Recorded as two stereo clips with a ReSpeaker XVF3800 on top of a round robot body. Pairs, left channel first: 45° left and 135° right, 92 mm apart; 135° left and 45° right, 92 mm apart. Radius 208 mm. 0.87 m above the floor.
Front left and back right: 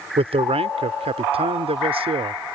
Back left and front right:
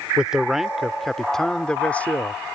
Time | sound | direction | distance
0.2 | a man speaking | 125° right | ?